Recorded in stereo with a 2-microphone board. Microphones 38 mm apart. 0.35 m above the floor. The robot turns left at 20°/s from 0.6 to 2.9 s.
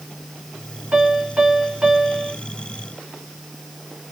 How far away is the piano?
About 3 m.